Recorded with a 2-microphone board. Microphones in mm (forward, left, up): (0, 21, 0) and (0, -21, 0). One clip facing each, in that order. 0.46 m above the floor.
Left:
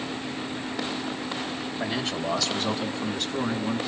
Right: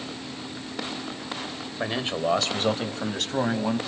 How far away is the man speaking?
About 1.9 m.